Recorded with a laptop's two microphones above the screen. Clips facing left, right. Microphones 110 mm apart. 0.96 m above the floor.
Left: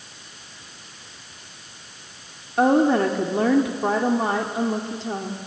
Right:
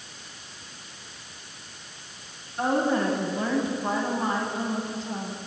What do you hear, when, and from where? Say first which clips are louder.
2.6 s a woman speaking: left 7 dB; 80° left, 2.0 m